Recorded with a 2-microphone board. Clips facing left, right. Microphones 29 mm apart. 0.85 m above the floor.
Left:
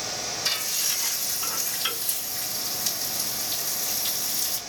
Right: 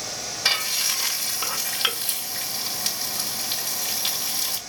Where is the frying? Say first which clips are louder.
Right 6 dB; 60° right (ahead or behind), 1.4 m.